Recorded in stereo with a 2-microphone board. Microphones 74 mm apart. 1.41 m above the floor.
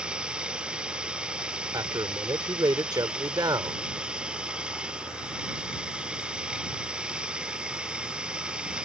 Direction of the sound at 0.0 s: 15° right (ahead or behind).